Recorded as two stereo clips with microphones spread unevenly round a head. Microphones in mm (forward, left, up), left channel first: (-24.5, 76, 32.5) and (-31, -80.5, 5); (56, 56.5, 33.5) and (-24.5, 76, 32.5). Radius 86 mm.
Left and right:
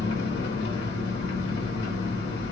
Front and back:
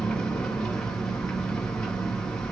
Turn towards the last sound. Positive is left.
turn(degrees=70)